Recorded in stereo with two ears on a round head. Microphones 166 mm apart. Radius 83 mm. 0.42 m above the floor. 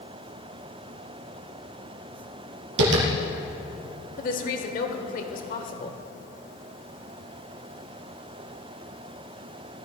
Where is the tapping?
75° right (ahead or behind), 3 m.